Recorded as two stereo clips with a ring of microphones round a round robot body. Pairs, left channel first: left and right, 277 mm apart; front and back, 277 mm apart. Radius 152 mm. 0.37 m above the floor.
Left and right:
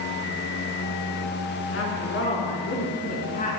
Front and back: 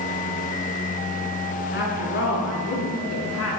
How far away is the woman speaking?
About 5.5 m.